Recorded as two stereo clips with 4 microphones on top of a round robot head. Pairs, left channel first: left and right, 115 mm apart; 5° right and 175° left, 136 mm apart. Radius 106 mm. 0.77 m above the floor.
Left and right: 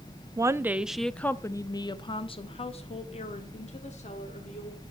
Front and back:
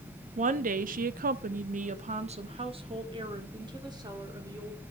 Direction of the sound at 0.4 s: 150° right.